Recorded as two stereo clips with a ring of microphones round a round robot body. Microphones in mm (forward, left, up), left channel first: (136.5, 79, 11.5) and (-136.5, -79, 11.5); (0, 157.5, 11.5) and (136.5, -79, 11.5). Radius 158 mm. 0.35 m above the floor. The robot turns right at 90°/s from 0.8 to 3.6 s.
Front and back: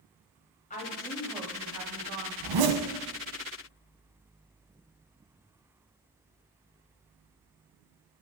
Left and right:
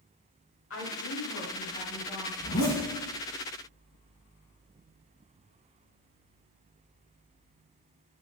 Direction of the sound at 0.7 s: 90° left.